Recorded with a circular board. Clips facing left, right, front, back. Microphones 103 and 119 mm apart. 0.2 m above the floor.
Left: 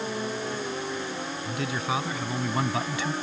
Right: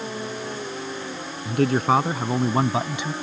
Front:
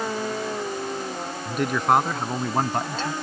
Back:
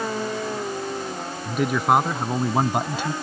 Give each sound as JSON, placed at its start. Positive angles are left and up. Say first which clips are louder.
{"t": 1.4, "sound": "a man speaking", "louder": "right 11 dB, back 1 dB", "azimuth_deg": -90}